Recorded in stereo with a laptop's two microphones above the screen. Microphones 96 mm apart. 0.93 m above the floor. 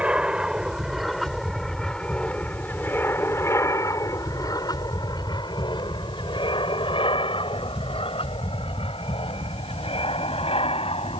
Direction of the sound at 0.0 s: 10° right (ahead or behind).